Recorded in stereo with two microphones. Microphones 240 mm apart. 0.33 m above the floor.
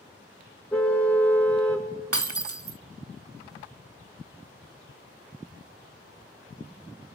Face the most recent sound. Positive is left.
turn(degrees=-70)  # may be behind; listen again after turning